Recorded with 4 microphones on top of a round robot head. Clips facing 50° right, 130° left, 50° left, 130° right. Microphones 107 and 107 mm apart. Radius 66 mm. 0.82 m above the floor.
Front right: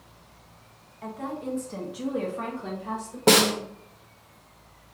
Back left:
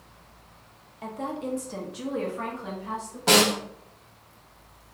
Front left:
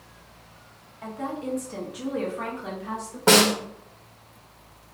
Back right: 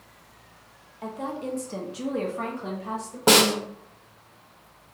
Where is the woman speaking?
170° left, 0.8 m; by 3.2 s 75° right, 1.0 m.